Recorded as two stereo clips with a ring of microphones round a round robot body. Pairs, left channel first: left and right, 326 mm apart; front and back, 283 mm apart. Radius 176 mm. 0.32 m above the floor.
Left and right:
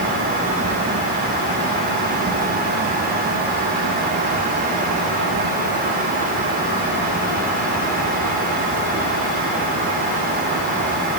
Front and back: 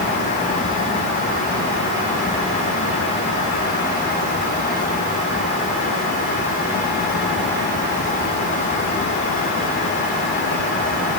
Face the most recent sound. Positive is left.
No sound to turn to.